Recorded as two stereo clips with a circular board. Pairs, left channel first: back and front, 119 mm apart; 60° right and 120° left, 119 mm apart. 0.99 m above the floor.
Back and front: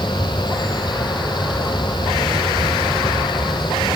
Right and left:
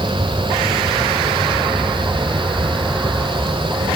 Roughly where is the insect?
Left.